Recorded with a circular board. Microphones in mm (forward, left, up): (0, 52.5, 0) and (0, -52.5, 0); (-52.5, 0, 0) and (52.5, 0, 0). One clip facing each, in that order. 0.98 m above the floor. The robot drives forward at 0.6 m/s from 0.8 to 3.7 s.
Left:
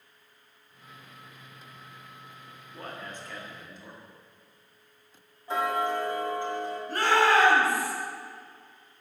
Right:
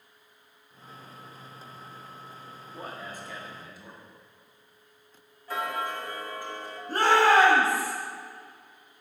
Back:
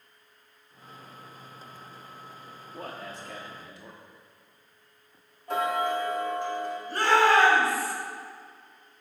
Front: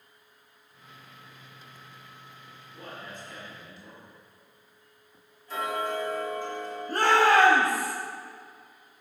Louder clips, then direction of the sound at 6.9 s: Right 2 dB, even; 35° right.